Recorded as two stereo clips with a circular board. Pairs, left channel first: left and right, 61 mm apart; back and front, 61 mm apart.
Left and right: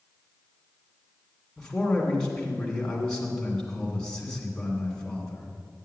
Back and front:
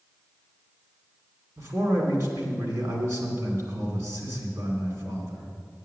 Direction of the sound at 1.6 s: 15° left.